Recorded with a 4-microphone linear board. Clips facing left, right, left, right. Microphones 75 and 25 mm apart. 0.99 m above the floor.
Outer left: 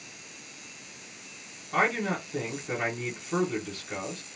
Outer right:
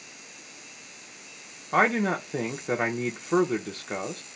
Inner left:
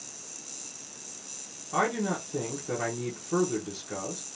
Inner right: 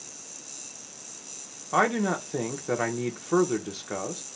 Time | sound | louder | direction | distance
1.7 | a man speaking | outer right 4 dB, inner right 4 dB | 40° right (ahead or behind) | 0.6 m